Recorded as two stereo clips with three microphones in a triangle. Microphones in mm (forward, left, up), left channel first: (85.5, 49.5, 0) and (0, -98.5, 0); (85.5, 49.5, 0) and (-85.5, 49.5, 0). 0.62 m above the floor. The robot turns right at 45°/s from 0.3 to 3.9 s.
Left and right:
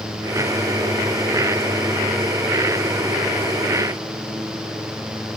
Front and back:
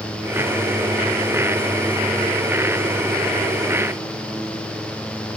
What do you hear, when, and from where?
Only background noise.